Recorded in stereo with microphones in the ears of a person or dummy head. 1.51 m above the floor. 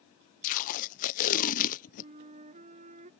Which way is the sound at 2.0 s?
40° right (ahead or behind).